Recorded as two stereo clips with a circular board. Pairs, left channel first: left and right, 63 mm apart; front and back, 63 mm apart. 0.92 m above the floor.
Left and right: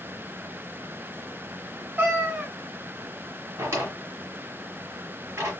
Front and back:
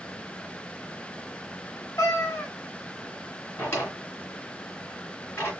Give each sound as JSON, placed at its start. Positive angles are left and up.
{"t": 2.0, "sound": "a cat meowing", "azimuth_deg": -35, "distance_m": 1.4}
{"t": 3.6, "sound": "a drawer", "azimuth_deg": -55, "distance_m": 2.5}